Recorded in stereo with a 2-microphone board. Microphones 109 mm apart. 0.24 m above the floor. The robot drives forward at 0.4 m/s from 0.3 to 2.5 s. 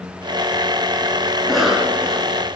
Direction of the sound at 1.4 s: Centre (ahead or behind).